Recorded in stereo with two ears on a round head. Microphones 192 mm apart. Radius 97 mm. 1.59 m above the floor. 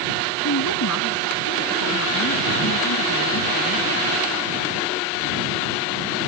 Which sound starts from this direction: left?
A woman speaking, at 0.4 s.